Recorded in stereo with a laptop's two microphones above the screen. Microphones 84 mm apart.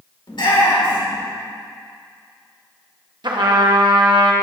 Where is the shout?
65° left (ahead or behind), 2.5 m.